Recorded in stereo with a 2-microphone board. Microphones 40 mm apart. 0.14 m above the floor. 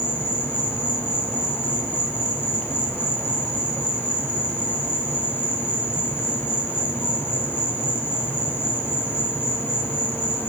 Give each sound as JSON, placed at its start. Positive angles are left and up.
{"t": 0.0, "sound": "an insect", "side_deg": 65, "distance_m": 1.7}